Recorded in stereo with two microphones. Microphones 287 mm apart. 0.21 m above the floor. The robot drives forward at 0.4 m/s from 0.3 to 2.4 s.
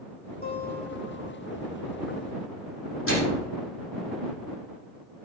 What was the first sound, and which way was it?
A guitar, 30° left (ahead or behind).